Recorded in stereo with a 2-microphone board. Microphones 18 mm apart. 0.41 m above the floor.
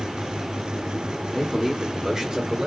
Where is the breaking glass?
I don't hear breaking glass.